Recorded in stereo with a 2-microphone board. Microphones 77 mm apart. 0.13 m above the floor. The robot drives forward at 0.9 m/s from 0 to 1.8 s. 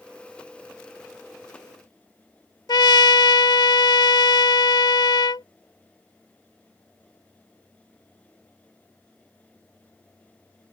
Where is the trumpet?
75° left (ahead or behind).